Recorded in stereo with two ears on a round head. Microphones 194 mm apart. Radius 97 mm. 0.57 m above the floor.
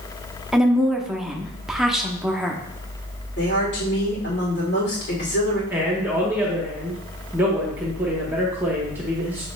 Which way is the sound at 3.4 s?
50° left (ahead or behind).